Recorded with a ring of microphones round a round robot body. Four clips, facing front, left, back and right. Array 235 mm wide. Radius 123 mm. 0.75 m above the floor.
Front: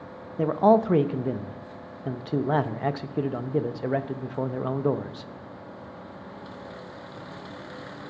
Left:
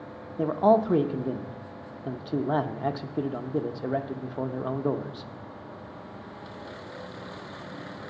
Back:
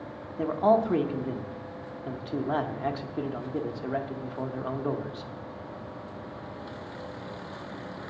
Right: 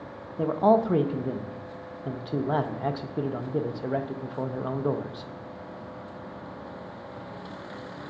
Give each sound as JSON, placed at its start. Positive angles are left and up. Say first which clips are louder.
{"t": 0.4, "sound": "a man speaking", "louder": "even, front 3 dB", "azimuth_deg": 10, "distance_m": 0.8}